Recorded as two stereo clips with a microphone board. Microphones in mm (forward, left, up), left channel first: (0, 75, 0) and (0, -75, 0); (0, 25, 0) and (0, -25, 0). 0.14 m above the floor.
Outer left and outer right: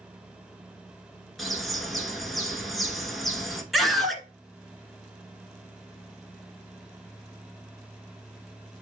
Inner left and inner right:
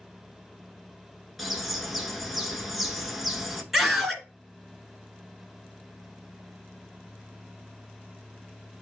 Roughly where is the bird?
Centre.